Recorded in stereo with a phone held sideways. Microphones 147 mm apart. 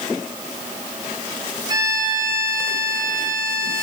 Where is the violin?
25° right (ahead or behind), 4 m.